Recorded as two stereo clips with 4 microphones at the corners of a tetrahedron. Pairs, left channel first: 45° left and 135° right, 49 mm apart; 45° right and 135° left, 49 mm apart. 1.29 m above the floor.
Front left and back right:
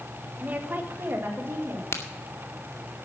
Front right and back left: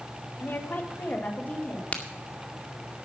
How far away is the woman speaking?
About 1.4 m.